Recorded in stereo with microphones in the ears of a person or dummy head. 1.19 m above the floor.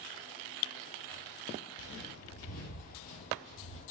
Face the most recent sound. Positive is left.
turn(degrees=35)  # may be behind; listen again after turning